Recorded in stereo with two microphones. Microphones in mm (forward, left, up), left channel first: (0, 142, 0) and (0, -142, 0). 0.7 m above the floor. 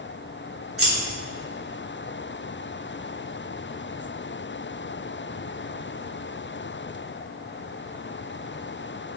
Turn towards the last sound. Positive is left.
turn(degrees=-45)  # may be behind; listen again after turning